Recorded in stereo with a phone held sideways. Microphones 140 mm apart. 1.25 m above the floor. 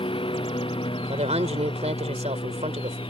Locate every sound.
0.0 s a lawn mower: 40° left (ahead or behind)
1.1 s a woman speaking: 50° right (ahead or behind)